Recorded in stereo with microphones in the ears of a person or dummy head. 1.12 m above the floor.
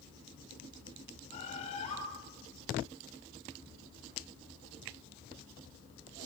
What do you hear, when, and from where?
1.3 s a bird: 35° left (ahead or behind), 8 m